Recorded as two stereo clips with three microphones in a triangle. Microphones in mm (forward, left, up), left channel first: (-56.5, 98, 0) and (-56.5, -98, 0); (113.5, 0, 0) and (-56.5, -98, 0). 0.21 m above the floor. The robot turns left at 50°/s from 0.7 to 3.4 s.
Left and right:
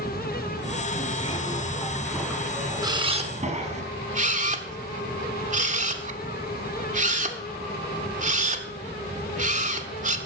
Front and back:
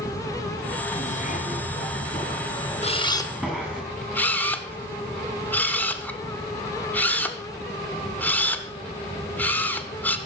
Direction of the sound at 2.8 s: 20° right.